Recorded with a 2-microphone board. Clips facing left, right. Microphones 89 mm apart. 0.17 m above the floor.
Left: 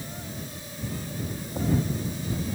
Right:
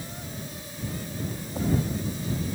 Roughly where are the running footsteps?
I don't hear running footsteps.